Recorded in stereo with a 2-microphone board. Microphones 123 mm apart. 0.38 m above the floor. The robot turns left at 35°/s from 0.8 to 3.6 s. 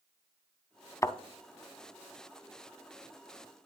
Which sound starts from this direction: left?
A thud, at 1.0 s.